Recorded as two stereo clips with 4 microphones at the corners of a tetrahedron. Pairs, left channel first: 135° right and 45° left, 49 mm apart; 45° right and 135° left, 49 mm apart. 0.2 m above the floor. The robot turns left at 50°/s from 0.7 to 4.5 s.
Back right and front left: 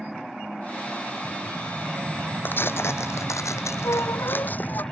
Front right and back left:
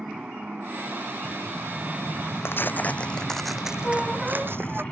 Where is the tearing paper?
85° right; by 4.8 s 175° left.